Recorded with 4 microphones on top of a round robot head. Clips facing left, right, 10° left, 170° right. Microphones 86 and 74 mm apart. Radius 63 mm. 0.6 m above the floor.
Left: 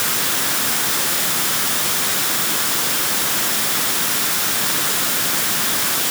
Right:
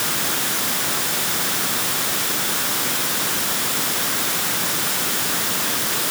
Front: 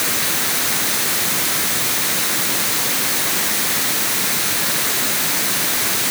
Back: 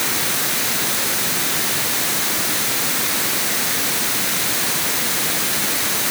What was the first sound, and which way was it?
Only background noise.